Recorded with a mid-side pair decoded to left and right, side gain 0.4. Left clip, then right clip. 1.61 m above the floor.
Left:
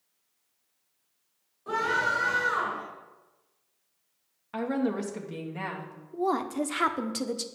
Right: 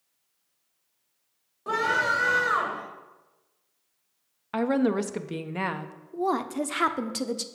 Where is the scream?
65° right, 3.5 m.